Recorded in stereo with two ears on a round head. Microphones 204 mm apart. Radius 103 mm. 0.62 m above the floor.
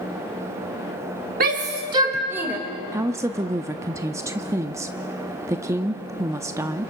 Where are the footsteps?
No footsteps in this recording.